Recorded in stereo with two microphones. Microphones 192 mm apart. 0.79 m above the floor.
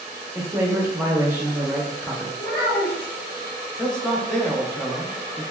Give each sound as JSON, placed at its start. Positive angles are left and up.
{"t": 0.3, "sound": "a man speaking", "side_deg": -10, "distance_m": 0.7}
{"t": 2.4, "sound": "a child speaking", "side_deg": 85, "distance_m": 1.2}
{"t": 3.8, "sound": "a man speaking", "side_deg": 5, "distance_m": 0.6}